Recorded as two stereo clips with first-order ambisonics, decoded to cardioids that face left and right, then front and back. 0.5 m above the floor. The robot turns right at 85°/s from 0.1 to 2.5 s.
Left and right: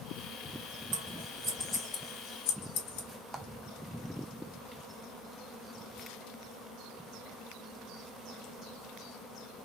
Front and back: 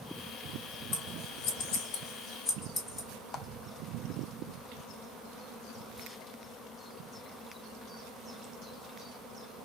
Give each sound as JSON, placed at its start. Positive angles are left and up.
{"t": 0.9, "sound": "scissors", "azimuth_deg": -55, "distance_m": 1.5}
{"t": 3.3, "sound": "a clap", "azimuth_deg": -25, "distance_m": 0.5}